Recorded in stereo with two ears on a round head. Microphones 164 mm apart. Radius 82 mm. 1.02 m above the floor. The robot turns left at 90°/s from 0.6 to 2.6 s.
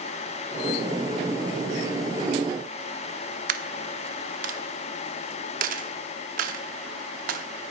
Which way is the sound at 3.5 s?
50° right (ahead or behind).